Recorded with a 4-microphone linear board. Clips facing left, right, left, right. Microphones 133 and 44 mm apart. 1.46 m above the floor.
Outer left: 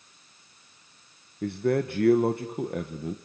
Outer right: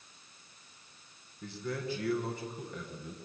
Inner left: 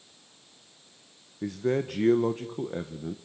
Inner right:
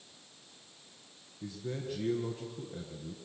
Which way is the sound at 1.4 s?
60° left (ahead or behind).